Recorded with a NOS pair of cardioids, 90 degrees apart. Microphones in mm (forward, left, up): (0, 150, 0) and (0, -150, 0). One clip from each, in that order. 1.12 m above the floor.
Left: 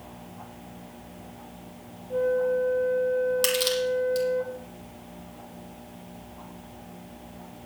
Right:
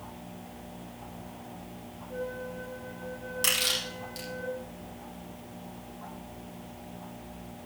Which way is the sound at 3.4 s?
55° left.